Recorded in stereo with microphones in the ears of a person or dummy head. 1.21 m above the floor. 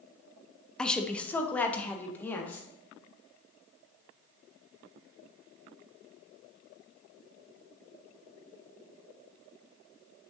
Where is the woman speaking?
5° left (ahead or behind), 0.5 m; by 2.7 s 10° left (ahead or behind), 1.6 m.